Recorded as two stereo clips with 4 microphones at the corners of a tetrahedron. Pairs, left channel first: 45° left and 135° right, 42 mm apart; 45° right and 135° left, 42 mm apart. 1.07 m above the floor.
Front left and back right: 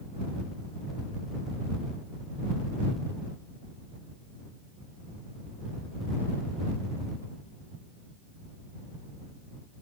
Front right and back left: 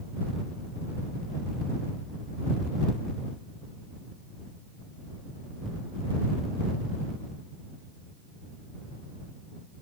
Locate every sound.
Only background noise.